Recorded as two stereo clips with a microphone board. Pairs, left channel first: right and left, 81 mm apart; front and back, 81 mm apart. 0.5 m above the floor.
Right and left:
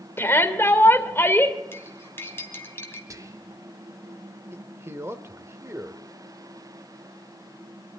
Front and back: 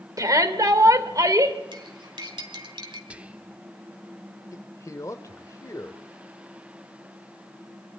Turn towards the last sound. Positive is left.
turn(degrees=40)